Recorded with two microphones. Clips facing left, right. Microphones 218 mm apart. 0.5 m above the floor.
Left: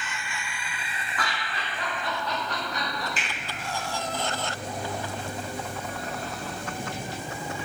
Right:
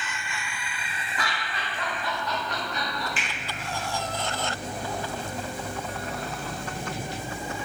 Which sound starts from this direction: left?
A finger snap, at 3.2 s.